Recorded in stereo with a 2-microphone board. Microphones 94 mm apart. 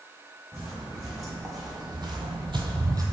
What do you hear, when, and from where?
0.5 s footsteps: 30° right (ahead or behind), 1.6 m; by 3.0 s 40° right (ahead or behind), 0.6 m